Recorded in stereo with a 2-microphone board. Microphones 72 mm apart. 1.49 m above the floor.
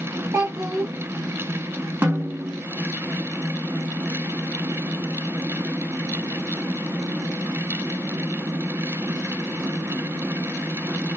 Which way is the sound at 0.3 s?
50° right (ahead or behind).